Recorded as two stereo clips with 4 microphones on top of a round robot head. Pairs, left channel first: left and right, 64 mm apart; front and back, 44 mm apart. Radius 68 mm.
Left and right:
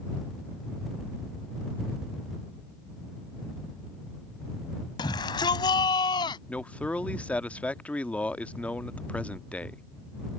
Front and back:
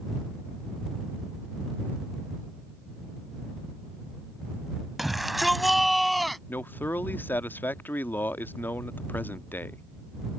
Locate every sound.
5.0 s a shout: 95° left; by 6.4 s 90° left
6.5 s a man speaking: 25° left